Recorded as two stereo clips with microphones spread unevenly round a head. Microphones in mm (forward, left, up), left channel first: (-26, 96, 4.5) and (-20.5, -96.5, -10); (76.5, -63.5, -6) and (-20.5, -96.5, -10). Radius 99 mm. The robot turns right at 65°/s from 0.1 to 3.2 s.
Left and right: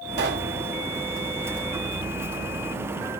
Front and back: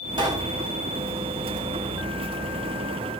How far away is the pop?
About 1.7 m.